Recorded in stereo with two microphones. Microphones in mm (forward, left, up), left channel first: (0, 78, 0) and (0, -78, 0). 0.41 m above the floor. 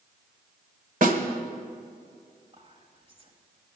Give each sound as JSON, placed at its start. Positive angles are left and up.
{"t": 1.0, "sound": "a snare drum", "side_deg": -55, "distance_m": 1.2}
{"t": 2.5, "sound": "whispering", "side_deg": -35, "distance_m": 2.0}